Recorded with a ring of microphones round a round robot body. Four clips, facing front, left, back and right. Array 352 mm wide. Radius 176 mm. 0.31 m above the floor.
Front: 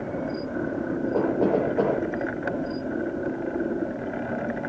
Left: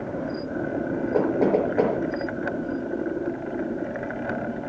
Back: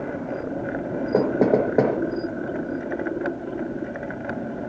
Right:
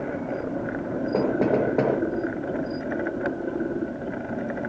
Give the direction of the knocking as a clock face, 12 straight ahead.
6 o'clock.